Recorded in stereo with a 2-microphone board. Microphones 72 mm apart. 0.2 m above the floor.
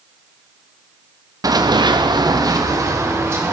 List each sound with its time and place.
1.4 s running footsteps: 60° right (ahead or behind), 1.1 m; by 3.5 s 35° right (ahead or behind), 3 m